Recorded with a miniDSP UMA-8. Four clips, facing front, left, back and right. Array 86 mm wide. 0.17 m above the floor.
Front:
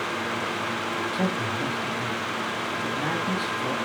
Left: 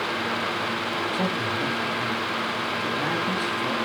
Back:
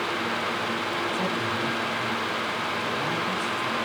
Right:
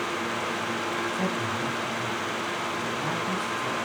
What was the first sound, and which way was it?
A man speaking, 35° left.